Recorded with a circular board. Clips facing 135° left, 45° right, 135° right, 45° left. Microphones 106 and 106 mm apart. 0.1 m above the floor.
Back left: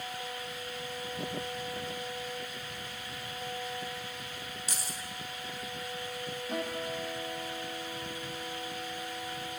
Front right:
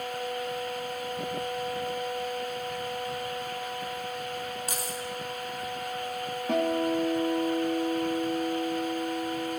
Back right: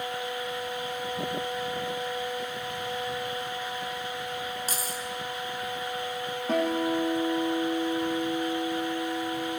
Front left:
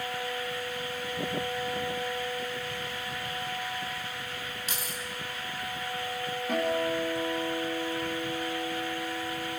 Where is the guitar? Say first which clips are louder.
Front right 11 dB, back right 3 dB; 75° right, 5.5 m.